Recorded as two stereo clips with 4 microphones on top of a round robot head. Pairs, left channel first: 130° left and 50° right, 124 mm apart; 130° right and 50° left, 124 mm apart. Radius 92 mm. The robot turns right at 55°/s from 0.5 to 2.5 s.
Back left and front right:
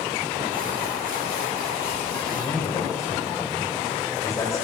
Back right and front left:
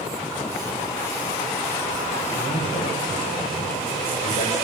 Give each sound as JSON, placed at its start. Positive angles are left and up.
{"t": 2.3, "sound": "a man speaking", "azimuth_deg": -170, "distance_m": 6.5}